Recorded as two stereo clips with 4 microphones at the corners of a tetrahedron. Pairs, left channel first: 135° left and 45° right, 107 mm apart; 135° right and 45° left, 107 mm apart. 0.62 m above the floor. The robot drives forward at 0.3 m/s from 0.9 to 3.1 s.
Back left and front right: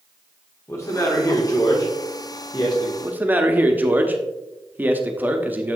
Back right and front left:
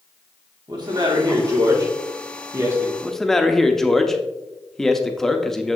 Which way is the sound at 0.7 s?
80° left.